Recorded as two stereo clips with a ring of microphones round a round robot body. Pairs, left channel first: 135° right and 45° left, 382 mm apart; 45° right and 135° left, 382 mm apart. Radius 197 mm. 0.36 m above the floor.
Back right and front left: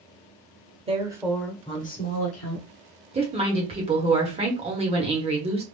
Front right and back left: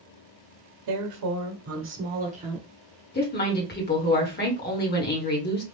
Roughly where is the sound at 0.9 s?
Behind left.